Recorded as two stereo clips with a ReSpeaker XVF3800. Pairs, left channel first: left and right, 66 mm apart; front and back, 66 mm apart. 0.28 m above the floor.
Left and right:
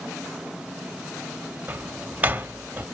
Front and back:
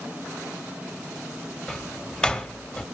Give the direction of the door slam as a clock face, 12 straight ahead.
2 o'clock.